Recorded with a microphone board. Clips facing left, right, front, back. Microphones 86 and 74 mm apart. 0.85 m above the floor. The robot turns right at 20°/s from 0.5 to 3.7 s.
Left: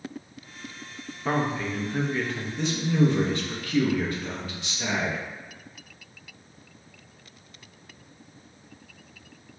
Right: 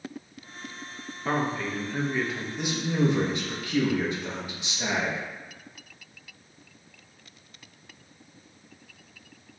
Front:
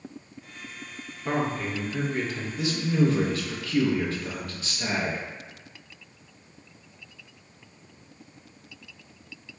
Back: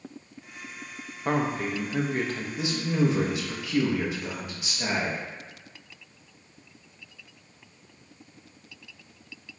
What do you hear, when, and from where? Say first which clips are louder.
1.2 s a man speaking: left 1 dB, back 1 dB; 170° left, 0.5 m; by 2.5 s 165° right, 0.5 m
2.6 s a man speaking: left 3 dB, front 2 dB; 155° right, 0.6 m; by 5.2 s 130° right, 0.6 m